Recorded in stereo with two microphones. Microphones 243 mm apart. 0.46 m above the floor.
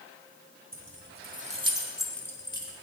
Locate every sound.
0.7 s keys jangling: 60° right (ahead or behind), 1.1 m; by 2.7 s 25° left (ahead or behind), 1.2 m